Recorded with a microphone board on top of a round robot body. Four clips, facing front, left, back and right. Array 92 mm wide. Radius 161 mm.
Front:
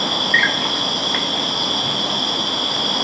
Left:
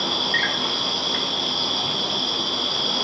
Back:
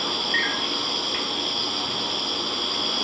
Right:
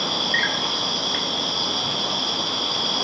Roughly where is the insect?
Ahead.